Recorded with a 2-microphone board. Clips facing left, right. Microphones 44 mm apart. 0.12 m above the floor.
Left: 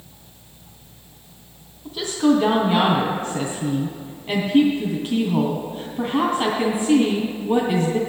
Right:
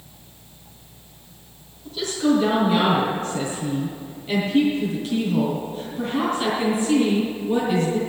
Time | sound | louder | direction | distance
1.9 | a woman speaking | left 2 dB | 25° left (ahead or behind) | 2.5 m